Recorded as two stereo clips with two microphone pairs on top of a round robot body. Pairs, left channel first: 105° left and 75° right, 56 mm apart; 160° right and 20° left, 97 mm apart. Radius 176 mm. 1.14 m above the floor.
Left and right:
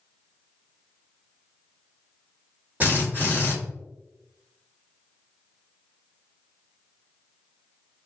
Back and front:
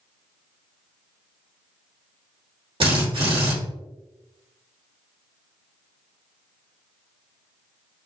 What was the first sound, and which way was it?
A drill, 10° right.